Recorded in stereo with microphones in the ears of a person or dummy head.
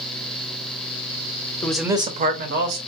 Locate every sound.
1.6 s a man speaking: 15° left (ahead or behind), 0.7 m; by 2.8 s 65° right (ahead or behind), 1.3 m